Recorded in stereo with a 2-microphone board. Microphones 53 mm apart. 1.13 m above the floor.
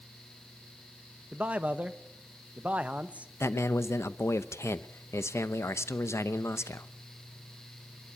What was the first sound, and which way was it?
A man speaking, 25° right (ahead or behind).